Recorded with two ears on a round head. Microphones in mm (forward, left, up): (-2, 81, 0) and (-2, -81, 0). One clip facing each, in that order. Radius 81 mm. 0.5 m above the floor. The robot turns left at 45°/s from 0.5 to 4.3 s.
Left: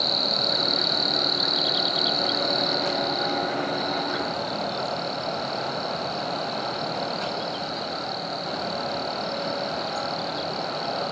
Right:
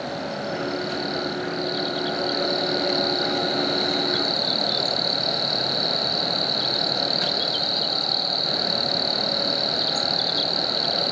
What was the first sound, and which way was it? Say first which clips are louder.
An insect: right 1 dB; 90° left.